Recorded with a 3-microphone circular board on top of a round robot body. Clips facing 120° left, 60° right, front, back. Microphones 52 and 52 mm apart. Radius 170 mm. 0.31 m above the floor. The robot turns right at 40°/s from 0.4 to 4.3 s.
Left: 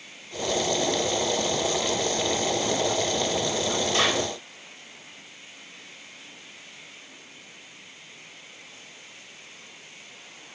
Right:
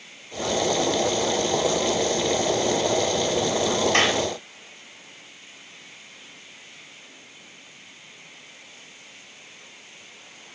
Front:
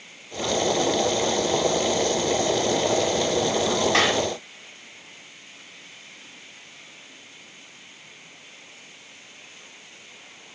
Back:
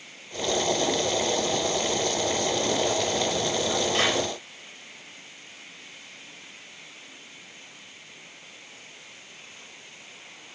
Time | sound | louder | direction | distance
3.9 | a clap | right 2 dB, front 4 dB | 20° right | 7.5 m